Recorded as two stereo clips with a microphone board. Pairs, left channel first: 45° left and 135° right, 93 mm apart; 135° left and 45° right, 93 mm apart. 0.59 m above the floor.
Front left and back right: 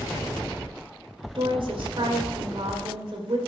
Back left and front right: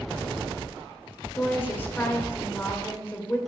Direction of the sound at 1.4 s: 160° right.